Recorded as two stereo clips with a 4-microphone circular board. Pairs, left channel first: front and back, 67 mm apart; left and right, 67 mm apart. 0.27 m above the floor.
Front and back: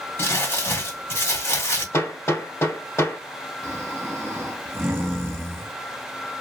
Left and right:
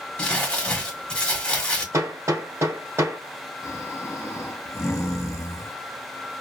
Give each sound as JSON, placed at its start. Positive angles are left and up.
{"t": 0.2, "sound": "crumpling", "azimuth_deg": 15, "distance_m": 1.5}
{"t": 1.9, "sound": "hammering", "azimuth_deg": -45, "distance_m": 1.2}
{"t": 3.6, "sound": "snoring", "azimuth_deg": 130, "distance_m": 0.6}